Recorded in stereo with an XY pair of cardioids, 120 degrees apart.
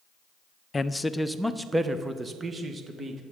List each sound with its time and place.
0.7 s a man speaking: 20° left, 0.6 m; by 3.2 s 35° right, 1.6 m